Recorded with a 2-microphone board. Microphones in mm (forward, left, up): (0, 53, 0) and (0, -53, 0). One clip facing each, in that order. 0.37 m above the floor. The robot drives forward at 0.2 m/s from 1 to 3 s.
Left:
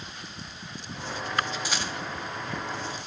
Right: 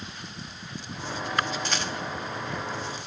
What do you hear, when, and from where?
1.6 s a rattle: 10° left (ahead or behind), 2 m